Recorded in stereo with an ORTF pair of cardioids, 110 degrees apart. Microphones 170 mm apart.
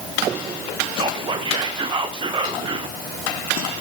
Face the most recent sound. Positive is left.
turn(degrees=-30)